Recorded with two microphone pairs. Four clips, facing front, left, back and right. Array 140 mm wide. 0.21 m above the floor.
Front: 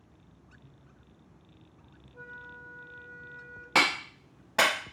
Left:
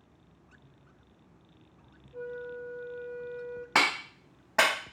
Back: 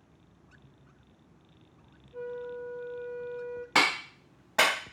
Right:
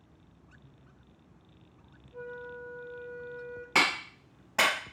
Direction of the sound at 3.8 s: 85° left.